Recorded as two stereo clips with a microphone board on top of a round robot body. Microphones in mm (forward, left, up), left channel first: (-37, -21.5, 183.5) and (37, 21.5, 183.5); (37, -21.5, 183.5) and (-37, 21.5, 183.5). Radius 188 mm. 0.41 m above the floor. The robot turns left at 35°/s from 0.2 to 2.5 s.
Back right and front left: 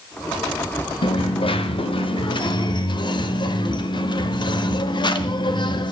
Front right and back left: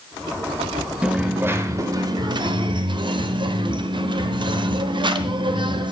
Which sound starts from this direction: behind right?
A dropped coin, at 1.0 s.